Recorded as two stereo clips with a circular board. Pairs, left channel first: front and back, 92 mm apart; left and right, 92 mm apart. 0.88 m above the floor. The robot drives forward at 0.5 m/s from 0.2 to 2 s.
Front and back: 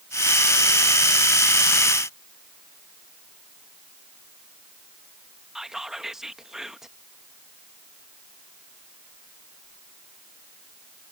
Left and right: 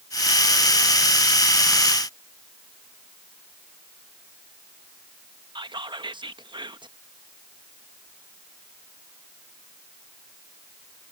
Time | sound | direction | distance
5.5 | whispering | 95° right | ?